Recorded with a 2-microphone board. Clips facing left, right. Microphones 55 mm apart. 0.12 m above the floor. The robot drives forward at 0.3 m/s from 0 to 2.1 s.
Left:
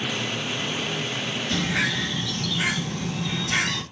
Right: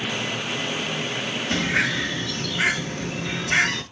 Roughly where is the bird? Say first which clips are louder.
Right 3 dB; right.